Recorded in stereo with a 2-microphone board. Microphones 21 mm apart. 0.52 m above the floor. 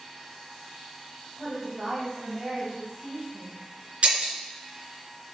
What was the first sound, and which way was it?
A woman speaking, 10° right (ahead or behind).